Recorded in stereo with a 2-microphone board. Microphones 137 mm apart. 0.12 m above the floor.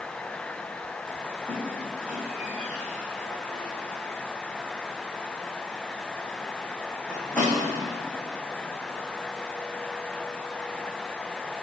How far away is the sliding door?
No sliding door in this recording.